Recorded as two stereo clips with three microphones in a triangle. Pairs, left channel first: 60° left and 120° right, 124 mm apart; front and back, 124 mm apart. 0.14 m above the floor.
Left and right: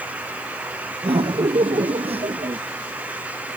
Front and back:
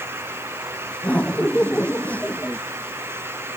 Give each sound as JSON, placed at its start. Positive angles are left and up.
{"t": 1.0, "sound": "laughter", "azimuth_deg": -80}